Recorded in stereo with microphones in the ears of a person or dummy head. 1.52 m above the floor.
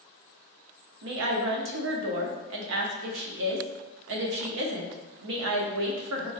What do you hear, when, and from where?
1.0 s a woman speaking: 70° right (ahead or behind), 0.8 m